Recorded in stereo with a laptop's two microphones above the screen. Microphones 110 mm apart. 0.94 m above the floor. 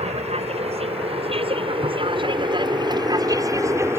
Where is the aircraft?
70° right (ahead or behind); by 4.0 s 20° right (ahead or behind).